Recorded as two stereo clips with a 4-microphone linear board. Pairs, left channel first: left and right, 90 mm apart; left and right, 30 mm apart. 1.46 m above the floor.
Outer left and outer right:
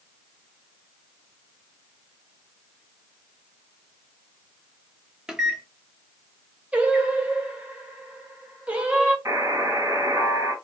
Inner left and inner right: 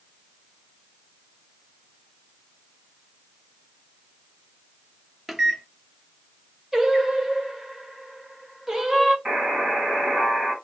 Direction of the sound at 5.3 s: 5° right (ahead or behind).